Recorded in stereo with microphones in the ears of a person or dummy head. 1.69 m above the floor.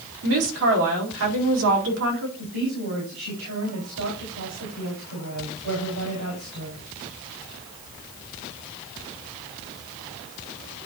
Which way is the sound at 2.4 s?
70° right (ahead or behind).